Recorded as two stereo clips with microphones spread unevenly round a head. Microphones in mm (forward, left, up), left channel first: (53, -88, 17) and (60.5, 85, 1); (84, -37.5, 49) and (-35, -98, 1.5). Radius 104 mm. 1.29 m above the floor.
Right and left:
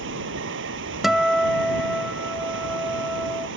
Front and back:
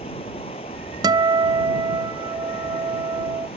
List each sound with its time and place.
0.0 s running water: 85° left
1.0 s a guitar: 170° left